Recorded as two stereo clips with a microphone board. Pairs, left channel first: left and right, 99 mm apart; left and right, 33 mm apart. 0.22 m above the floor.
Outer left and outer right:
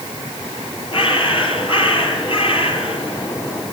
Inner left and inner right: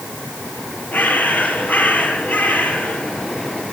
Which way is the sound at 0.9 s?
65° left (ahead or behind).